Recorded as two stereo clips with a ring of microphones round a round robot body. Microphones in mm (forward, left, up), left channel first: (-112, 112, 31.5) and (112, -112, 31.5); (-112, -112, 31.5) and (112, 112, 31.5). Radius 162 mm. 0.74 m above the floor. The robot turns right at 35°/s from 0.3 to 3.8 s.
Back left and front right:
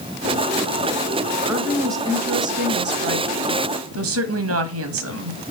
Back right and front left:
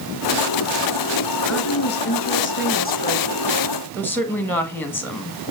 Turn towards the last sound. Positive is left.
turn(degrees=-55)